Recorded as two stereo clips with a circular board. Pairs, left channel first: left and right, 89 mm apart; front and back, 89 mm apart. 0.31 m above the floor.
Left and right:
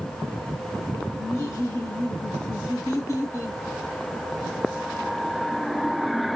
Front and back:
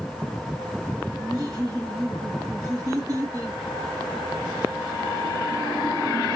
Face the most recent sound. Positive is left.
turn(degrees=145)